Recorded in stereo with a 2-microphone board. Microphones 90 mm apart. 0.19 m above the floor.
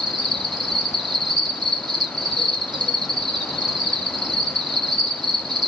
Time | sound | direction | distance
0.0 | an insect | 55° right (ahead or behind) | 1.7 m